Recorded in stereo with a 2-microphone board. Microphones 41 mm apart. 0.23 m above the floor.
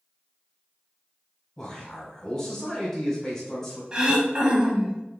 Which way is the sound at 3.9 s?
20° right (ahead or behind).